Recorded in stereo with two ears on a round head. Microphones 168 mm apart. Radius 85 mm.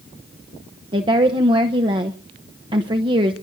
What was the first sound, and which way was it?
A woman speaking, 25° right (ahead or behind).